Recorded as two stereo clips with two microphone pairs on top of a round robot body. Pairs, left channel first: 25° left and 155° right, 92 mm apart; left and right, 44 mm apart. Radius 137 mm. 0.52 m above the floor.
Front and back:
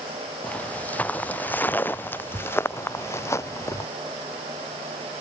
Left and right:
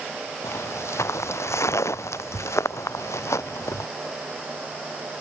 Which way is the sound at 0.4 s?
100° left.